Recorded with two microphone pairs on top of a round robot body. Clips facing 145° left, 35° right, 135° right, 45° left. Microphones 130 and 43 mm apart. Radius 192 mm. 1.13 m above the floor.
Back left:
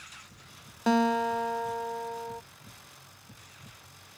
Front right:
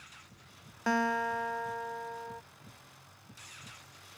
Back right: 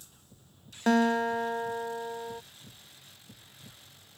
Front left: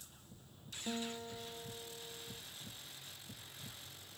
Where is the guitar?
150° right.